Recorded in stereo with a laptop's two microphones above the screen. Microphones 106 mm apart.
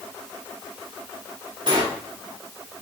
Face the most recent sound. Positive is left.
turn(degrees=-45)  # may be behind; listen again after turning